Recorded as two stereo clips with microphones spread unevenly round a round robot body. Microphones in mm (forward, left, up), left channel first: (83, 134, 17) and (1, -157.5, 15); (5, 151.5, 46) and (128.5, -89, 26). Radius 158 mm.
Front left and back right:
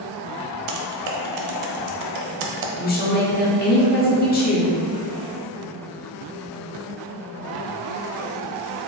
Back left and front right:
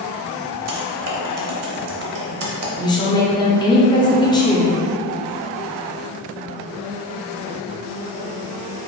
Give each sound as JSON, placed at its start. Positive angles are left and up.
{"t": 0.7, "sound": "typing on a keyboard", "azimuth_deg": -95, "distance_m": 0.6}
{"t": 2.8, "sound": "a woman speaking", "azimuth_deg": 50, "distance_m": 0.9}